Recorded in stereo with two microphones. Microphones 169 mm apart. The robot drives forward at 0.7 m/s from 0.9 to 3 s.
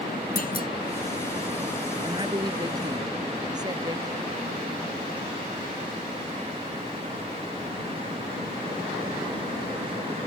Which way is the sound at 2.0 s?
25° right (ahead or behind).